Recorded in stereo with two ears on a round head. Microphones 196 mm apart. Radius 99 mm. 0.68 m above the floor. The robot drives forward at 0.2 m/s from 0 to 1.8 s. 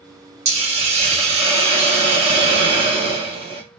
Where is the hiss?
30° right (ahead or behind), 1.0 m; by 3.6 s 25° right (ahead or behind), 1.1 m.